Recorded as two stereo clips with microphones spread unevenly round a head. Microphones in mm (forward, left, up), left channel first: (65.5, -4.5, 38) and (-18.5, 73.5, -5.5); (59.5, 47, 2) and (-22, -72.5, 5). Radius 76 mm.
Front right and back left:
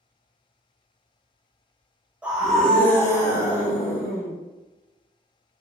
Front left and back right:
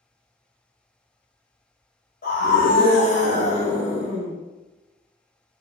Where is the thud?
I don't hear a thud.